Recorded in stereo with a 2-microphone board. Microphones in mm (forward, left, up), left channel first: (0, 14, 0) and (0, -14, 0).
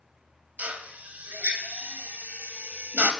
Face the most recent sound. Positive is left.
turn(degrees=-65)  # may be behind; listen again after turning